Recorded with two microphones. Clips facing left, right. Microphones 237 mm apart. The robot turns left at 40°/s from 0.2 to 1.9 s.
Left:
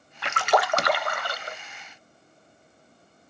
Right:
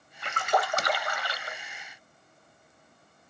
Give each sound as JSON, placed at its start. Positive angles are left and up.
{"t": 0.2, "sound": "a splash", "azimuth_deg": 95, "distance_m": 0.7}